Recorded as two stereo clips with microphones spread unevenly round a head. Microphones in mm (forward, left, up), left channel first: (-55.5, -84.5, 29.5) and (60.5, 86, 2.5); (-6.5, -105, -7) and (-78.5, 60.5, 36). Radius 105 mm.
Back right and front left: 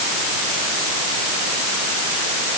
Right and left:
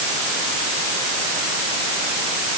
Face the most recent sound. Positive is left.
No sound to turn to.